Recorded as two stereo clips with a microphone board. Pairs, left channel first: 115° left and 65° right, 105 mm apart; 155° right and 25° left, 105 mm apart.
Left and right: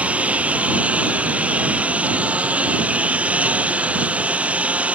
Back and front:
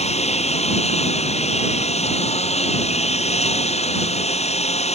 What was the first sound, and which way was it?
A lawn mower, 145° right.